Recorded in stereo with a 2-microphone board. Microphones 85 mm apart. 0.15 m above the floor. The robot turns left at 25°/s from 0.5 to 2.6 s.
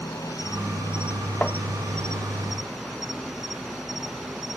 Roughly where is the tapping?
Centre.